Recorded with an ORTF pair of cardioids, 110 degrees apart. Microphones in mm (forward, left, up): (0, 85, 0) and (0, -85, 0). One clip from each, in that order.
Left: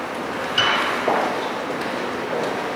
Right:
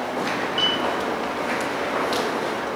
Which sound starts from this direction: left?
A piano, at 0.6 s.